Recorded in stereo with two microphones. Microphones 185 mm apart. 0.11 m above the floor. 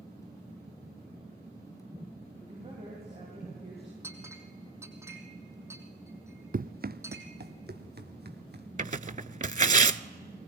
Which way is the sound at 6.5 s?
50° right (ahead or behind).